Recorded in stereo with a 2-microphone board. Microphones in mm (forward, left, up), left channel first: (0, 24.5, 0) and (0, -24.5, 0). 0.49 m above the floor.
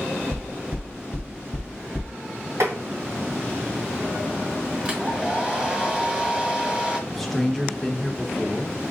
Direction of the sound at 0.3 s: 15° right (ahead or behind).